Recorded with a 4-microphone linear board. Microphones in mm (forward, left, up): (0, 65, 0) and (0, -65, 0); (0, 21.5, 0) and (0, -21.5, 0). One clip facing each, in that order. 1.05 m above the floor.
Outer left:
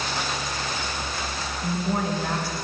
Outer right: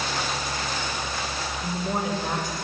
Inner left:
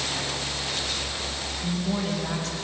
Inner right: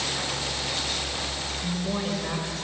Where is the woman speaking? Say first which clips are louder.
Outer left 2 dB, inner left 2 dB; 20° right (ahead or behind), 4.5 m.